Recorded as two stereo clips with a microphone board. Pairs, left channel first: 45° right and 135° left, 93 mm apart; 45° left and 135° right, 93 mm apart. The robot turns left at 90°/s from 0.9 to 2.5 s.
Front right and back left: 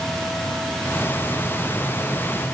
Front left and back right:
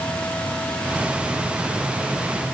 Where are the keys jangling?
I don't hear keys jangling.